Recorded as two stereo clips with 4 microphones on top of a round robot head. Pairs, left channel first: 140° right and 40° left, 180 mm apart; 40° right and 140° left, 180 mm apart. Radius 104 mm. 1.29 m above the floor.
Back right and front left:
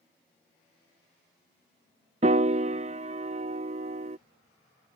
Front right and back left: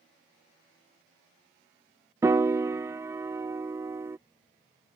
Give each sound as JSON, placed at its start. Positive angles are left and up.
{"t": 2.2, "sound": "a piano", "azimuth_deg": 70}